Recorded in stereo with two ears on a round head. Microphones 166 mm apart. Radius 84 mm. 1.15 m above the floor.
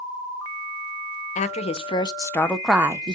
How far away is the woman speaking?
About 1.0 m.